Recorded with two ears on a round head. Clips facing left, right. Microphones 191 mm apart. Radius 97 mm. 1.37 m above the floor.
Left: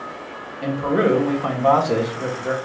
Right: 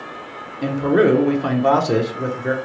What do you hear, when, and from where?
0.6 s a man speaking: 25° right (ahead or behind), 0.8 m